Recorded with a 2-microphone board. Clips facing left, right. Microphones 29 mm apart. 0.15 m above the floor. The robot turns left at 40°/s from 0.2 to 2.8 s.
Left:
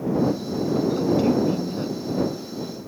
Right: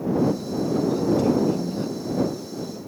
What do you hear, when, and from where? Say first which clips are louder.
1.0 s a woman speaking: even; 65° left; by 2.8 s 10° right